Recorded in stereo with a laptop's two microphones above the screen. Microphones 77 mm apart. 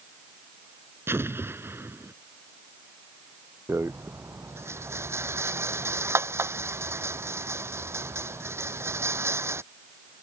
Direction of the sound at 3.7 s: 35° right (ahead or behind).